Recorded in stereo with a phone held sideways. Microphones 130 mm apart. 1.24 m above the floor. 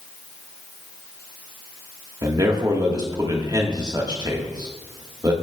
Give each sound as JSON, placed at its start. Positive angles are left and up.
{"t": 2.2, "sound": "a man speaking", "side_deg": -35, "distance_m": 1.5}